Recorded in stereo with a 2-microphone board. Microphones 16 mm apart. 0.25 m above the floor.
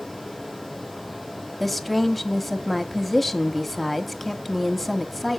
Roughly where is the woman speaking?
Centre.